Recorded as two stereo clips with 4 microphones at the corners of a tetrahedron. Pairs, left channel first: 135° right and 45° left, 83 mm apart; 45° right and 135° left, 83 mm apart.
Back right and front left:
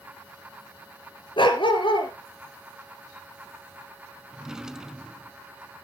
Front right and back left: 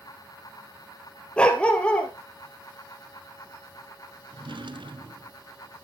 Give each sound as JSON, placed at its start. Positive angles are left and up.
{"t": 1.4, "sound": "a dog barking", "azimuth_deg": -125, "distance_m": 2.0}
{"t": 4.3, "sound": "a drawer", "azimuth_deg": 130, "distance_m": 0.7}